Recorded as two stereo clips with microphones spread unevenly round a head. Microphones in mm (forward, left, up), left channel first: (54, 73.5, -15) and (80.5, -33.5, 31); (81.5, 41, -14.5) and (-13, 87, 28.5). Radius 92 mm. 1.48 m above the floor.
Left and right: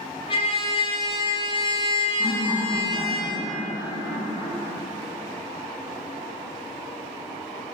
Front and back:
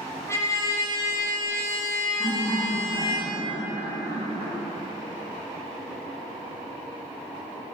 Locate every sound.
0.3 s a trumpet: 55° left, 0.6 m
2.2 s laughter: 155° right, 1.5 m